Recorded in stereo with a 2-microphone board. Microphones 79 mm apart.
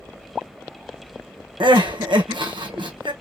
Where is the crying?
80° right, 1.1 m.